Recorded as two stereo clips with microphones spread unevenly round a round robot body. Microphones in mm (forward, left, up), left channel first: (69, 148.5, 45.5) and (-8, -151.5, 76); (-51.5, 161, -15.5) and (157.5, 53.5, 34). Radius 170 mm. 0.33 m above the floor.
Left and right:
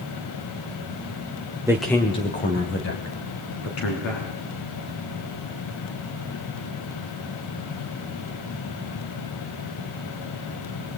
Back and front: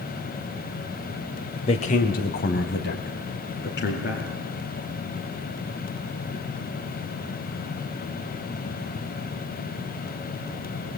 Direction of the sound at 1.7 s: 175° left.